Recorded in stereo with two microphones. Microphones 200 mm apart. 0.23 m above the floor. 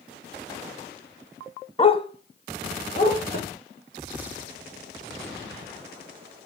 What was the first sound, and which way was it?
A dog barking, 30° left (ahead or behind).